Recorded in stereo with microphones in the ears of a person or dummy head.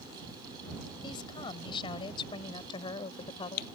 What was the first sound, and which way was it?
A woman speaking, 25° left (ahead or behind).